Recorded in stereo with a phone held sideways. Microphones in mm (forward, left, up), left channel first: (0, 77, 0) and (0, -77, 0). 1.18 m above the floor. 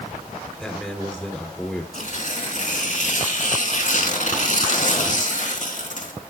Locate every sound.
0.6 s a man speaking: 10° left (ahead or behind), 4 m
1.9 s tearing paper: 55° left (ahead or behind), 3 m